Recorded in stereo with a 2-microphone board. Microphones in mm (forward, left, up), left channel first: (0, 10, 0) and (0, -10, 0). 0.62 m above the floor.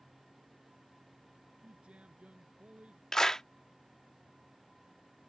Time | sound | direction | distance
1.6 | a man speaking | 70° right (ahead or behind) | ?
3.1 | a clap | 25° left (ahead or behind) | ?